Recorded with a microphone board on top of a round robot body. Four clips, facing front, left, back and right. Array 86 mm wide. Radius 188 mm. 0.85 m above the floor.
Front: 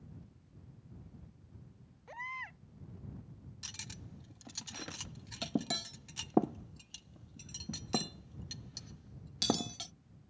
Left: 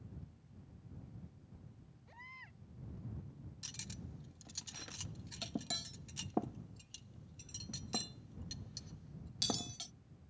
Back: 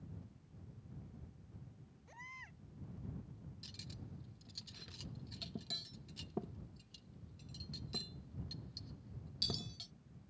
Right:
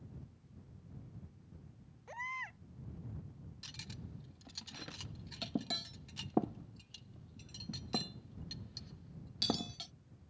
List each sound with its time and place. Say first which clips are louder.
2.1 s a baby crying: right 13 dB, front 11 dB; 50° right
3.6 s cutlery clinking: right 1 dB, front 4 dB; 10° right